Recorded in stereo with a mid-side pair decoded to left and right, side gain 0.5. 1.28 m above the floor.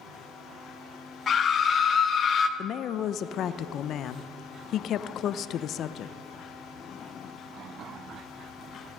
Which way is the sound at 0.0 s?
65° left.